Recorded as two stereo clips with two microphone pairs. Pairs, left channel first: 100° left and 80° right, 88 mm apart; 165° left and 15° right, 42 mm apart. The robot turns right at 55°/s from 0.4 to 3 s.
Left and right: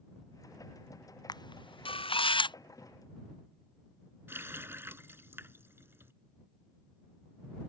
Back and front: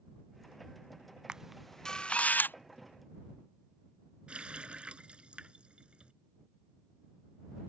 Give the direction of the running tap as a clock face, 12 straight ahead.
2 o'clock.